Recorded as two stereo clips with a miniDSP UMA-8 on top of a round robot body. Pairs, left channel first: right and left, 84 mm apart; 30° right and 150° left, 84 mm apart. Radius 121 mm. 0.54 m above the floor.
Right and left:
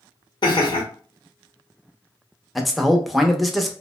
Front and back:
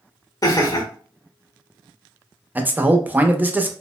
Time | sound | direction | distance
0.4 | laughter | 70° right | 1.2 m
2.5 | a man speaking | straight behind | 0.7 m